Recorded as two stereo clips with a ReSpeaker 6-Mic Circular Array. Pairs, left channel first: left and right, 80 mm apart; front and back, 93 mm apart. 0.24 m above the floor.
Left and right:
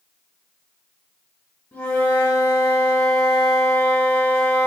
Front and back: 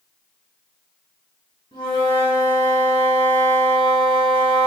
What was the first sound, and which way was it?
A flute, 20° left.